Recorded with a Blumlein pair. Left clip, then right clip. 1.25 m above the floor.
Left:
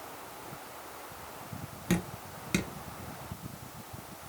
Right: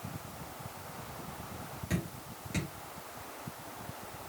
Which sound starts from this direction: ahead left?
Dripping, at 1.9 s.